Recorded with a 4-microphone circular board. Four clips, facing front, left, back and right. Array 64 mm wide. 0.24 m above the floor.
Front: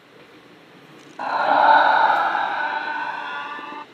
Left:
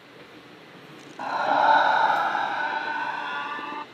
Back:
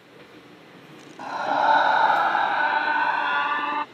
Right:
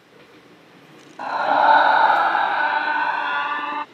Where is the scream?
20° right; by 3.9 s 140° right.